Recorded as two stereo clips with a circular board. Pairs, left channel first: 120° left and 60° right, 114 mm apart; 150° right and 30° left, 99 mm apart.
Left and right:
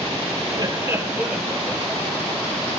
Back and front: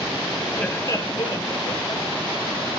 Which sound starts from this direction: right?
Laughter, at 0.5 s.